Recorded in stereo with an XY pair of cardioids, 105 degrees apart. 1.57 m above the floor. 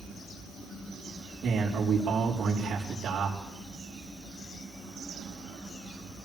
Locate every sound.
1.4 s a man speaking: 55° right, 4.5 m